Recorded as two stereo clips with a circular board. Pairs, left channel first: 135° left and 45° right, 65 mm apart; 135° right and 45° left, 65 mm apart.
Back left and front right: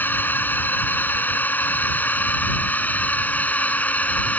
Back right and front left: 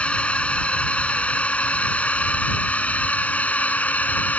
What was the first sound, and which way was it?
A drone, 170° left.